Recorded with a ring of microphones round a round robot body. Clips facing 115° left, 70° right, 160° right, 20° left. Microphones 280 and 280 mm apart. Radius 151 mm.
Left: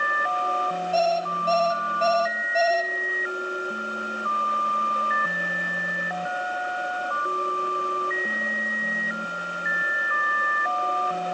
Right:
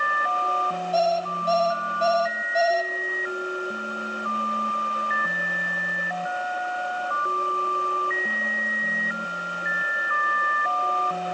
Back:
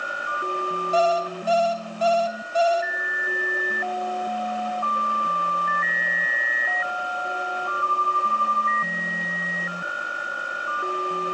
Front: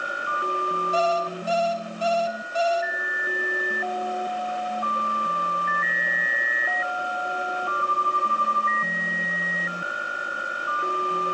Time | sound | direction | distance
0.9 | an alarm clock | 155° right | 3 m